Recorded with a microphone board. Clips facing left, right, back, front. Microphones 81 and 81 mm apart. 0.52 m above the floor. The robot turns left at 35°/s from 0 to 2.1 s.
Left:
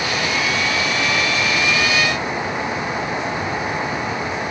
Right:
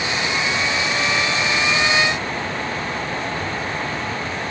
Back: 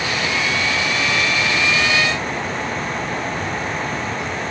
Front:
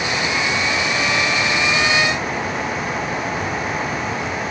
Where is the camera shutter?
No camera shutter in this recording.